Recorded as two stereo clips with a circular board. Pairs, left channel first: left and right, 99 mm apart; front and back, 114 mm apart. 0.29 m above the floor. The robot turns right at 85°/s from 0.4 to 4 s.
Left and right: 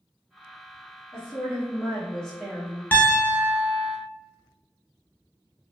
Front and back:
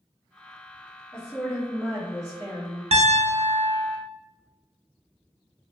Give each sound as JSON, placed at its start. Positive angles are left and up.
{"t": 1.1, "sound": "a woman speaking", "azimuth_deg": 65, "distance_m": 1.1}
{"t": 2.9, "sound": "a piano", "azimuth_deg": 160, "distance_m": 0.5}